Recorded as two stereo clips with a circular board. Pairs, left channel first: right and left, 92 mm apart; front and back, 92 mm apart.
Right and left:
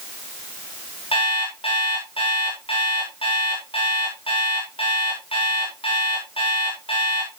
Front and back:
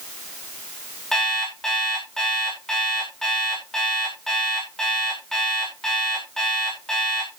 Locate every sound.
1.1 s an alarm clock: 85° right, 9.5 m